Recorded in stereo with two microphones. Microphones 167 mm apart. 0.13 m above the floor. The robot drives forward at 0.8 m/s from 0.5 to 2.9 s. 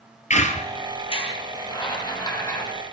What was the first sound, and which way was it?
A squeak, 45° left (ahead or behind).